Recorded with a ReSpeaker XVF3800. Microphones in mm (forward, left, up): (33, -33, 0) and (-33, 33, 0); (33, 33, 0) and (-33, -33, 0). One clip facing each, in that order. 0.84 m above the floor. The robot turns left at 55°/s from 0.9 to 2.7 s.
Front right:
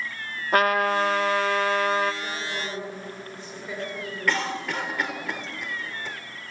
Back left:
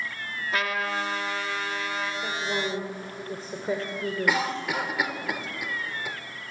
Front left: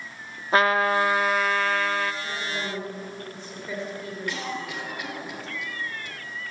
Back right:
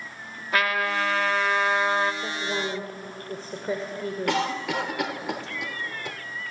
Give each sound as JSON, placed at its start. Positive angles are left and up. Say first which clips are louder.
{"t": 0.5, "sound": "a trumpet", "louder": "front right 8 dB, front left 5 dB", "azimuth_deg": -10, "distance_m": 1.4}
{"t": 2.2, "sound": "a woman speaking", "louder": "back left 3 dB, back right 3 dB", "azimuth_deg": -155, "distance_m": 3.0}
{"t": 4.3, "sound": "a cough", "louder": "front right 1 dB, back right 7 dB", "azimuth_deg": -145, "distance_m": 2.5}